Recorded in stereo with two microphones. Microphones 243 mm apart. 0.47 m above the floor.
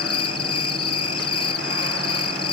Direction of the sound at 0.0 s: 70° left (ahead or behind).